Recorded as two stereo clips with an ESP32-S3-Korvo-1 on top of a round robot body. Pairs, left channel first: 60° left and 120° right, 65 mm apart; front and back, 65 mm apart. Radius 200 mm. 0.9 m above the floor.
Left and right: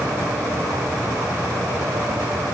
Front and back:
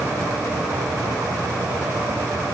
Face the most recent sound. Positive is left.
No sound to turn to.